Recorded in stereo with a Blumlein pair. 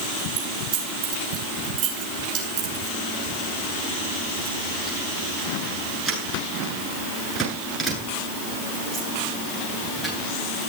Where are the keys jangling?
35° right, 8 m; by 10.7 s straight ahead, 11 m.